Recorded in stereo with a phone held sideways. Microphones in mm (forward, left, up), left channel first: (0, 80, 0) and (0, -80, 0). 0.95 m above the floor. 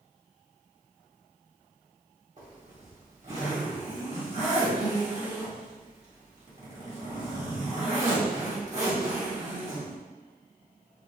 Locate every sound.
2.4 s a zipper: 45° right (ahead or behind), 1.7 m